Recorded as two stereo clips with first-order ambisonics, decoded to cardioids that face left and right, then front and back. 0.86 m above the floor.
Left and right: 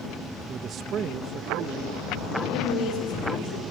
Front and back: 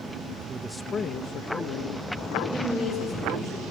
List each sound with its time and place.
0.5 s a man speaking: 135° right, 0.6 m; by 2.3 s 25° right, 1.7 m
2.4 s a woman speaking: 105° left, 3 m